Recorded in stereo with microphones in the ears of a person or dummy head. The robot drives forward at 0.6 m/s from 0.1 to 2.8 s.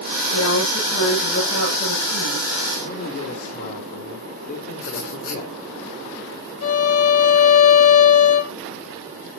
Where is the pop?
No pop in this recording.